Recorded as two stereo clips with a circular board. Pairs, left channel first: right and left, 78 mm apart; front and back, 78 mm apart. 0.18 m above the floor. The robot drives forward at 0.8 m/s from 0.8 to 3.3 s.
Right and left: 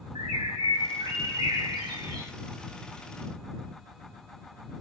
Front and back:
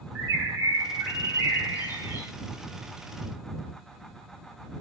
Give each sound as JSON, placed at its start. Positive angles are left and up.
{"t": 0.1, "sound": "a bird", "azimuth_deg": 85, "distance_m": 2.0}